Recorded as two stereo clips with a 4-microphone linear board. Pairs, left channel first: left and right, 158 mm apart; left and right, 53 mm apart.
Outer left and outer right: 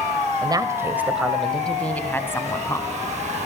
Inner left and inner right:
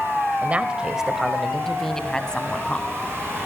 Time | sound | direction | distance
0.4 | a woman speaking | 30° right (ahead or behind) | 1.3 m